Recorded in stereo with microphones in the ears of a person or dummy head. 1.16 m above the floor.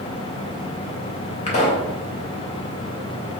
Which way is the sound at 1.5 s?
35° left (ahead or behind).